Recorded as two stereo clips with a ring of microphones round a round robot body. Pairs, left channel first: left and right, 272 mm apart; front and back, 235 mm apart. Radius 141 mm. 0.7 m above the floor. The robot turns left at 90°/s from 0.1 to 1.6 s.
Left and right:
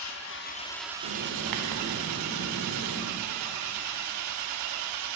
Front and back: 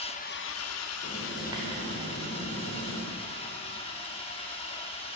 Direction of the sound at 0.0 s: 65° left.